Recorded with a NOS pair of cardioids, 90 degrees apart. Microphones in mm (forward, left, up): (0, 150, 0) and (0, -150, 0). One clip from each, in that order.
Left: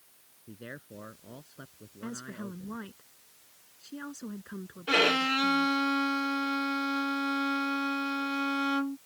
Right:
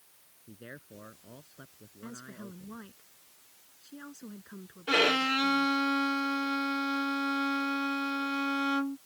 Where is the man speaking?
25° left.